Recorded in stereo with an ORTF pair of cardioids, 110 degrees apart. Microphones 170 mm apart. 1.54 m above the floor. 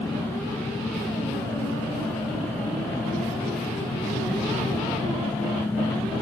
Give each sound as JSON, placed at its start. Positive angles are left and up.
{"t": 0.0, "sound": "an engine running", "azimuth_deg": 15}